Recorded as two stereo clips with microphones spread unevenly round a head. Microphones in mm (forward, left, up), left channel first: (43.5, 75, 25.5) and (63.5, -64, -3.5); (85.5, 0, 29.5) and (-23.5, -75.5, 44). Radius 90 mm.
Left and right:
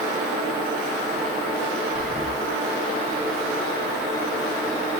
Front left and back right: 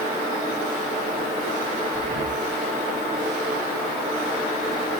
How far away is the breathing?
About 1.8 m.